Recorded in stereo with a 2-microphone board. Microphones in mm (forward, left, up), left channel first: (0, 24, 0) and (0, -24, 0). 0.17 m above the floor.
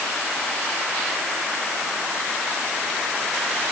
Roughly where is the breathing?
I don't hear breathing.